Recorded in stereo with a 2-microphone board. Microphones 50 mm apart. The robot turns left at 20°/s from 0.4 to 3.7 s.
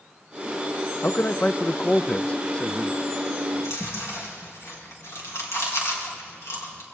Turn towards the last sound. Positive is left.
turn(degrees=80)